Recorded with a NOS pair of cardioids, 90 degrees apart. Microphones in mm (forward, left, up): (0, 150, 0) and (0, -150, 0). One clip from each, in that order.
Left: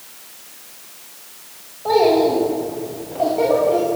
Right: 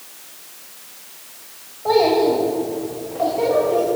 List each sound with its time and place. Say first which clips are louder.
1.9 s a child speaking: left 1 dB; straight ahead, 5 m; by 3.9 s 30° left, 5.5 m